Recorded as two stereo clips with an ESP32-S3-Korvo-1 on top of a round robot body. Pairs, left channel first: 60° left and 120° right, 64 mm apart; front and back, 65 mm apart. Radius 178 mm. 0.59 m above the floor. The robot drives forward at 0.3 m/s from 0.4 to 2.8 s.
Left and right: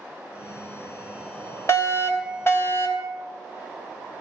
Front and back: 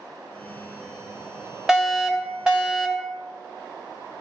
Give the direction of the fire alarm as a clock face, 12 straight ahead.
9 o'clock.